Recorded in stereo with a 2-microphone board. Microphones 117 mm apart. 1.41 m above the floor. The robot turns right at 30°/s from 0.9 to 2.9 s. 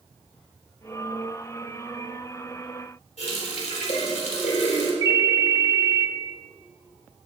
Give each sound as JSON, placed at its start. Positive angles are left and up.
{"t": 3.2, "sound": "a running tap", "side_deg": 75, "distance_m": 3.5}
{"t": 5.0, "sound": "a ringtone", "side_deg": -35, "distance_m": 1.3}